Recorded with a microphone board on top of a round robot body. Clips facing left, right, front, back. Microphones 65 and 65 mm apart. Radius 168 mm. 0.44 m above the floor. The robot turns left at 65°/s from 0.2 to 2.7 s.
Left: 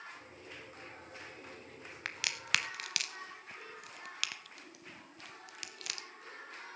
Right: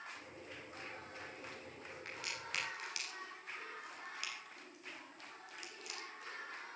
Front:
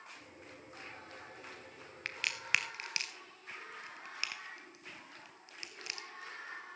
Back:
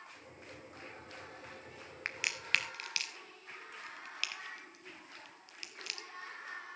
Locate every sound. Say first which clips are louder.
2.0 s a crack: left 10 dB, even; 110° left, 0.5 m; by 6.1 s 70° left, 0.5 m